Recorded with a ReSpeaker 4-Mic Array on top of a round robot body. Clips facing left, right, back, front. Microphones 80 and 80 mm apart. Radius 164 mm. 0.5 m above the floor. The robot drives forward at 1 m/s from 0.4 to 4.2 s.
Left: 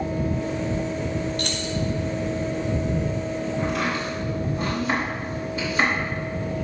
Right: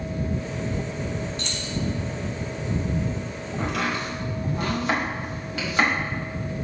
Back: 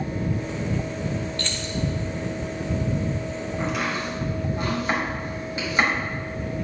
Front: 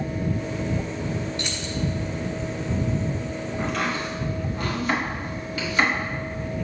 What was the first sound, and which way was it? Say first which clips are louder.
Keys jangling: left 5 dB, even; 70° left.